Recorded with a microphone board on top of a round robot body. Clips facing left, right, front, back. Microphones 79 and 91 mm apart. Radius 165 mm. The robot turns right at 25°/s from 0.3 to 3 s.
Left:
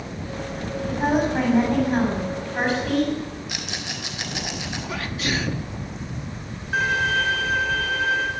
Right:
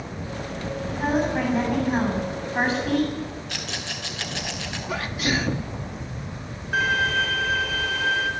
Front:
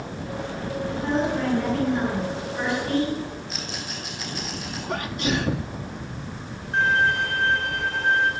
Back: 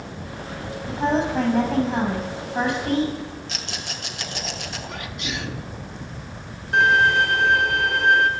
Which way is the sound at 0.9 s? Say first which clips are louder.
Left 2 dB, back 3 dB; 150° left.